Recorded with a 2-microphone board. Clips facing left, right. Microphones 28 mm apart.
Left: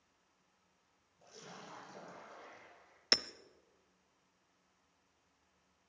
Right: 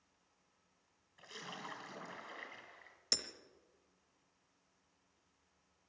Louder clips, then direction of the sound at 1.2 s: Right 5 dB; 75° right (ahead or behind).